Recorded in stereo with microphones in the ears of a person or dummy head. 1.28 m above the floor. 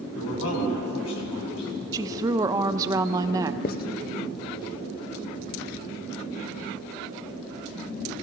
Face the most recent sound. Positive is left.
turn(degrees=45)  # may be behind; listen again after turning